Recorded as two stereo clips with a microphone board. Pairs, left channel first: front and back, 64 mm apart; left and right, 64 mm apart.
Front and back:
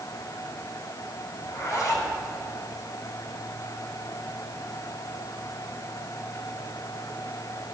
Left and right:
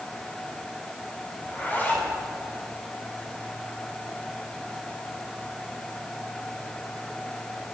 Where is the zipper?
30° left, 3 m.